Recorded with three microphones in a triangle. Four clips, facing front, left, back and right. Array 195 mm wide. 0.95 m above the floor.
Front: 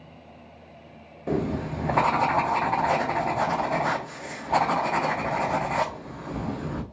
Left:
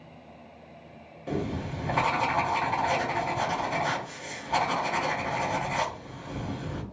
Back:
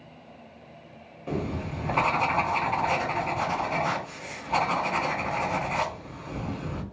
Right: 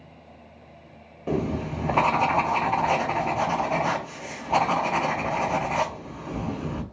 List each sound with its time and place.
1.3 s writing: 40° right, 0.5 m